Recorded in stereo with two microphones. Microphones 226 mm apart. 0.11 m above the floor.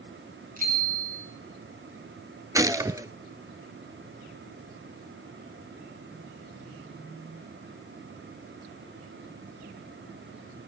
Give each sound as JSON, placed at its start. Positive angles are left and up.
{"t": 0.6, "sound": "a bicycle bell", "side_deg": -35, "distance_m": 9.5}
{"t": 2.5, "sound": "a gunshot", "side_deg": -15, "distance_m": 0.5}